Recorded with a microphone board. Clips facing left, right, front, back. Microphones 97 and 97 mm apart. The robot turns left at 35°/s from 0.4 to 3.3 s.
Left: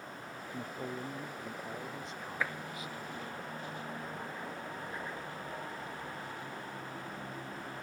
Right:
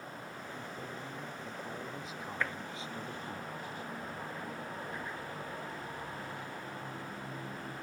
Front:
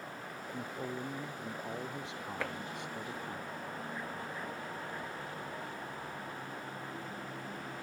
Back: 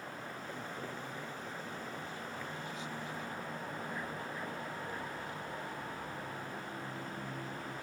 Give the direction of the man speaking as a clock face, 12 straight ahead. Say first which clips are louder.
Left 6 dB, front 7 dB; 10 o'clock.